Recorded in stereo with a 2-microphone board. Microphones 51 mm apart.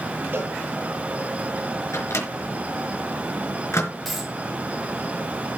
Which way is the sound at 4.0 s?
Centre (ahead or behind).